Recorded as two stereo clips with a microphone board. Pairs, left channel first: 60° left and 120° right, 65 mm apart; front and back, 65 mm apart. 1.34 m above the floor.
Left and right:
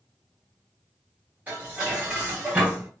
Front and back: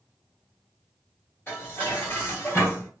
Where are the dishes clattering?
55° right, 1.7 m.